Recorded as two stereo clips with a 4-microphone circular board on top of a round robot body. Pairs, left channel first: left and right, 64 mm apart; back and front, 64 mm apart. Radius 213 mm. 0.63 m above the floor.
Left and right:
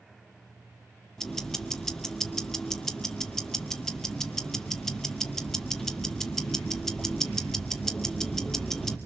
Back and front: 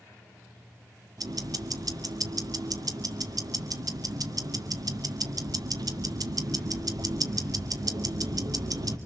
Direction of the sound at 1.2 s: 5° left.